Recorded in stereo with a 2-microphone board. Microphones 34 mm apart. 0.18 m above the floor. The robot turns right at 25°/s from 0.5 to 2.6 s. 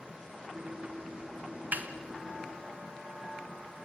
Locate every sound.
1.7 s a snare drum: 55° right (ahead or behind), 1.4 m